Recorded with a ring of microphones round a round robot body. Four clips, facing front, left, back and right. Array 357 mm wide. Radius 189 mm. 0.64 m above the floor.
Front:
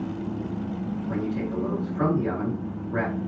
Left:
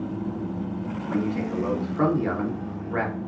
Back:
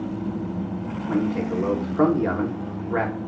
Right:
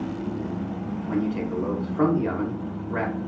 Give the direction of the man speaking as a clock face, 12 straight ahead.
6 o'clock.